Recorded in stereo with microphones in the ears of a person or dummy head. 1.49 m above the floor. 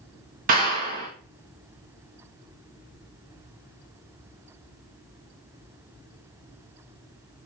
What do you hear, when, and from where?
0.5 s a clap: 40° right (ahead or behind), 1.5 m